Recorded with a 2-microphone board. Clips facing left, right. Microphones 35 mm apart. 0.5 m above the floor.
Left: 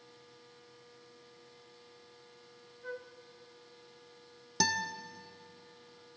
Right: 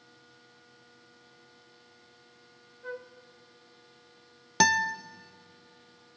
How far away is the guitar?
About 0.5 m.